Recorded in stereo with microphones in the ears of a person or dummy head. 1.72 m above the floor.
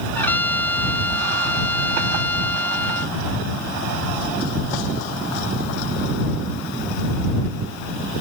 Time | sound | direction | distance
0.1 | a trumpet | 10° left (ahead or behind) | ?